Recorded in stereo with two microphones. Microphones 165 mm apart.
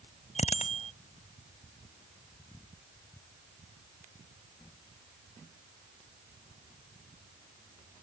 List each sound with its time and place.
0.3 s a bicycle bell: 45° left (ahead or behind)